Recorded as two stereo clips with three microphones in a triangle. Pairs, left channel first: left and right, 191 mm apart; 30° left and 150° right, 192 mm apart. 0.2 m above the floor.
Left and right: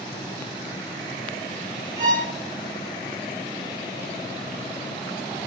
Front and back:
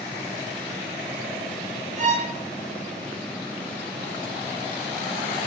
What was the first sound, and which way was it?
A violin, 120° right.